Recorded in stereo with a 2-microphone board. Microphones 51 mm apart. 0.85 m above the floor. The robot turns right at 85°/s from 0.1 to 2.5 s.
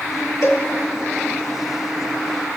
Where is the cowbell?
60° left (ahead or behind), 0.8 m.